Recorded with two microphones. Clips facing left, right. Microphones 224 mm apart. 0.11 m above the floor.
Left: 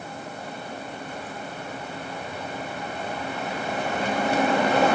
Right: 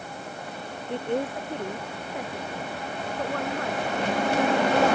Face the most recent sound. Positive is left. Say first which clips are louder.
# right 9 dB
turn(degrees=-80)